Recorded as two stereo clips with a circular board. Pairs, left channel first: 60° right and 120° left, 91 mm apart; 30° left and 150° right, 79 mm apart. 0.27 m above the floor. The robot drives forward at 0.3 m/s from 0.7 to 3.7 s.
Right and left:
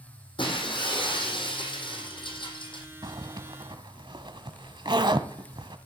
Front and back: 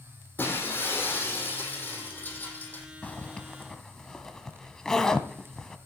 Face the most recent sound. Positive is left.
turn(degrees=110)